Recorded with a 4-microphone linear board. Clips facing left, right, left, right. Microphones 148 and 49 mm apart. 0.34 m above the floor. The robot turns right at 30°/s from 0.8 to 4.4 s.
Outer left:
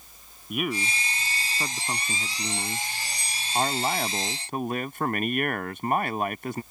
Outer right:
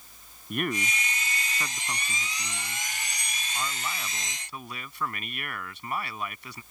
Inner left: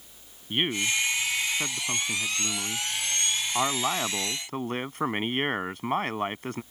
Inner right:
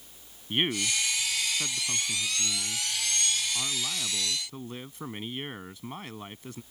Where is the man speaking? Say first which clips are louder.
Outer left 1 dB, inner left 2 dB; 5° left; by 6.6 s 115° left.